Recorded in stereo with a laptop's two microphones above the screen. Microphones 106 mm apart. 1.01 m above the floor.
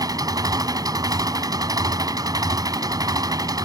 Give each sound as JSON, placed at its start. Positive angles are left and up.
{"t": 0.0, "sound": "an engine running", "side_deg": -35}